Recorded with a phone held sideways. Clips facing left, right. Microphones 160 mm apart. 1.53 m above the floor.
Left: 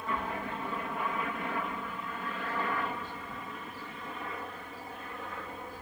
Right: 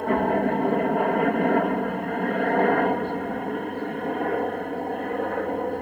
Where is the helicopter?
60° right (ahead or behind).